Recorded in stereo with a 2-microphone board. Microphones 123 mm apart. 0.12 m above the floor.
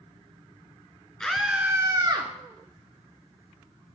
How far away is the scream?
About 1.3 m.